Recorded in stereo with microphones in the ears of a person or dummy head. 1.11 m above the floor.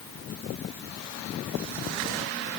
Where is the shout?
No shout in this recording.